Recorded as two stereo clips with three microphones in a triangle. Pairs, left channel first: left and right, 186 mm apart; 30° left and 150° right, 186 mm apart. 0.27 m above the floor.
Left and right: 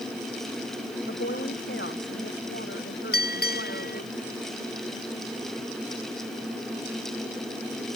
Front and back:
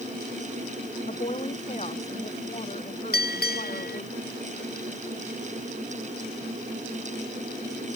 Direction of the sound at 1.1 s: 85° left.